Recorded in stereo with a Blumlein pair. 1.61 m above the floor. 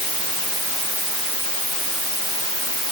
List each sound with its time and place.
Only background noise.